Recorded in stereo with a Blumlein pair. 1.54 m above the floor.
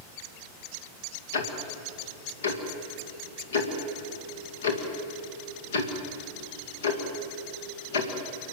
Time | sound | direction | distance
1.3 | ticking | 60° left | 2 m